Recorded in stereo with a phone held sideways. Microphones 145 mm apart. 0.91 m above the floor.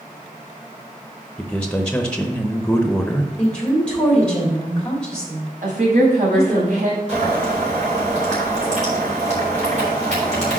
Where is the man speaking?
5° left (ahead or behind), 0.7 m.